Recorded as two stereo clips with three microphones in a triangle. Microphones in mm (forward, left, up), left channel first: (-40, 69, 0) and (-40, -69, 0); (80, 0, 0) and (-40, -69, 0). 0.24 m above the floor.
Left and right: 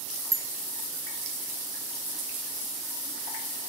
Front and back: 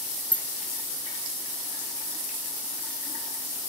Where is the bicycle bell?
25° right.